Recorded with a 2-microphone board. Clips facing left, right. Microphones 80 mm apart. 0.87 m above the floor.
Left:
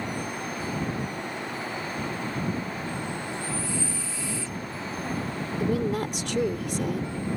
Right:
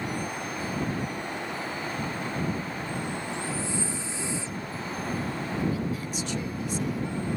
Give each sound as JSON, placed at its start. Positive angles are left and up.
{"t": 3.3, "sound": "breathing", "side_deg": -25}
{"t": 5.6, "sound": "a woman speaking", "side_deg": 75}